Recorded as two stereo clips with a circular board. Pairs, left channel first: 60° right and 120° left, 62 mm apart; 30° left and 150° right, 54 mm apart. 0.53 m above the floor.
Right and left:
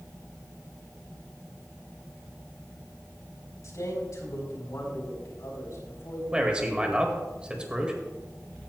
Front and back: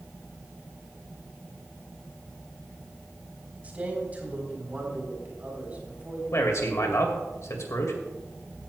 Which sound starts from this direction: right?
A man speaking, at 3.6 s.